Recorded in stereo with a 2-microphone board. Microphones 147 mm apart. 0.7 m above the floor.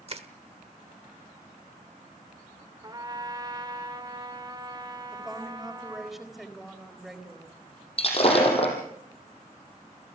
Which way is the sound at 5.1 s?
Centre (ahead or behind).